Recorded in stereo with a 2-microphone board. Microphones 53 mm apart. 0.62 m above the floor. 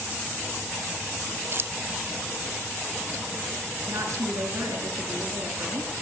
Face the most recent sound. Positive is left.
turn(degrees=-65)  # may be behind; listen again after turning